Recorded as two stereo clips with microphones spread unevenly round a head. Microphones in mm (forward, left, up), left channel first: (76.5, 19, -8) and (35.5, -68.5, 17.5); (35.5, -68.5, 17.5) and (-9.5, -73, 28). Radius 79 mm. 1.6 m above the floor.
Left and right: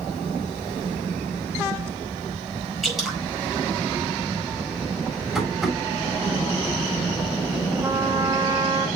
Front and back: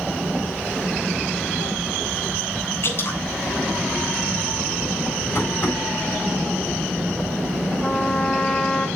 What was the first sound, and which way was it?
Dripping, 30° right.